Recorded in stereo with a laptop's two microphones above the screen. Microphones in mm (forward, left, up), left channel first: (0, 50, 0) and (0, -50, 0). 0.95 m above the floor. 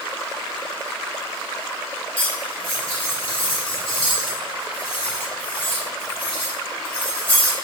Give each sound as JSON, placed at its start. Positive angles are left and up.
{"t": 2.2, "sound": "cutlery clinking", "side_deg": 60, "distance_m": 0.9}